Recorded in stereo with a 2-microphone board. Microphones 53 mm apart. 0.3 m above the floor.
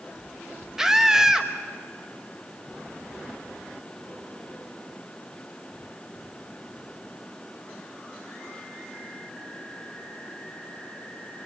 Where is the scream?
10° right (ahead or behind), 1.2 m.